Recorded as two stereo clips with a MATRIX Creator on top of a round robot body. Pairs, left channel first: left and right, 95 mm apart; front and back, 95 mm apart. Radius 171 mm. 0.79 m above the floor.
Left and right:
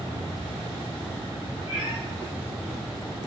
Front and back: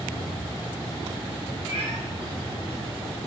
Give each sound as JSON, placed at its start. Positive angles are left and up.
{"t": 1.7, "sound": "a cat meowing", "azimuth_deg": -35, "distance_m": 1.8}